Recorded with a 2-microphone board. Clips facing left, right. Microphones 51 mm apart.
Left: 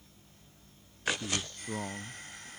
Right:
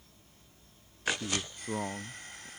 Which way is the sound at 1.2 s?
15° right (ahead or behind).